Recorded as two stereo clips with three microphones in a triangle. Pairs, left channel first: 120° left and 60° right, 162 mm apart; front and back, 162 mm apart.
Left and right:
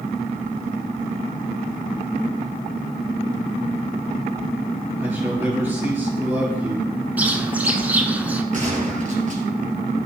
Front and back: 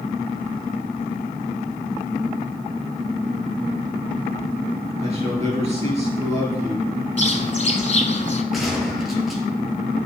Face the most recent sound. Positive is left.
turn(degrees=-90)